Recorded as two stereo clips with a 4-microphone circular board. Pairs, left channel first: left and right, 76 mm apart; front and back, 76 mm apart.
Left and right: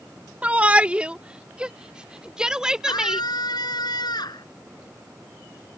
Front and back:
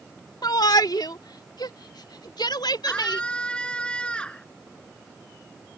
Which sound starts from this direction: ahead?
A shout, at 0.4 s.